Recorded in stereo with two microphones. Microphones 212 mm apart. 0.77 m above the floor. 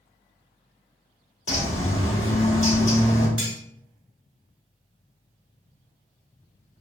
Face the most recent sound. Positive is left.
turn(degrees=-90)